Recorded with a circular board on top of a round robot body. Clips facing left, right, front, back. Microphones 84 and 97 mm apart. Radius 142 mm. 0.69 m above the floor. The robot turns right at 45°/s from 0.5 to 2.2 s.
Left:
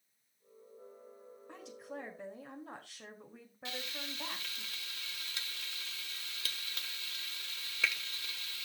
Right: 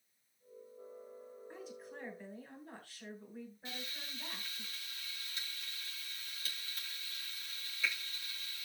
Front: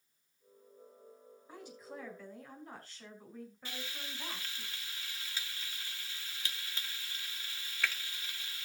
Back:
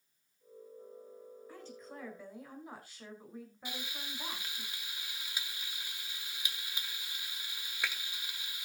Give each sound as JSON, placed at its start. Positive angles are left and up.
{"t": 1.5, "sound": "a woman speaking", "azimuth_deg": 70, "distance_m": 5.0}
{"t": 3.6, "sound": "frying", "azimuth_deg": 105, "distance_m": 1.2}